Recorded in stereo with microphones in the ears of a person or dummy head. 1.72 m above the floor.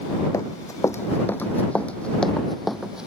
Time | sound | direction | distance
0.3 | running footsteps | 20° left (ahead or behind) | ?